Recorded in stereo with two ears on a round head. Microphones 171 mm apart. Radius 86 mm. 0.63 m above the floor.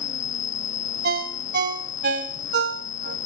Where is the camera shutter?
No camera shutter in this recording.